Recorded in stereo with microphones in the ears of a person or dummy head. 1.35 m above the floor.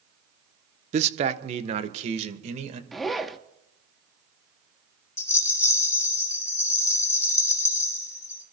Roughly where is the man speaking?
Right.